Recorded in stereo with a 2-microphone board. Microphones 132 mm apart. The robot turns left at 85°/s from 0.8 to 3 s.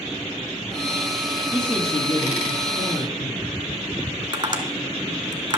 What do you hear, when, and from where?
1.5 s a man speaking: 175° right, 2.5 m; by 3.5 s 55° left, 2.5 m
4.3 s tapping: 40° right (ahead or behind), 0.9 m